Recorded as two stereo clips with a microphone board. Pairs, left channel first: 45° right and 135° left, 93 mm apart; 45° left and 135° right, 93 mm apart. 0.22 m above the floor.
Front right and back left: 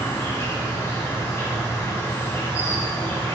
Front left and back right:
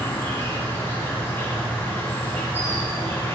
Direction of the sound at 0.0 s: 5° right.